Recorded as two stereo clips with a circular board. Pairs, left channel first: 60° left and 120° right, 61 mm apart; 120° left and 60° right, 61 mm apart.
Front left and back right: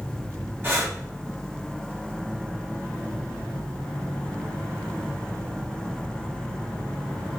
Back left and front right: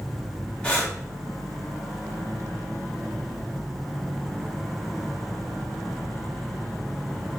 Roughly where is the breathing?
Behind.